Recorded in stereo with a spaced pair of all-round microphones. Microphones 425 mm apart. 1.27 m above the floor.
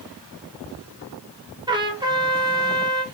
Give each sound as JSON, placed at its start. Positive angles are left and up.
{"t": 1.7, "sound": "a trumpet", "side_deg": -10, "distance_m": 1.4}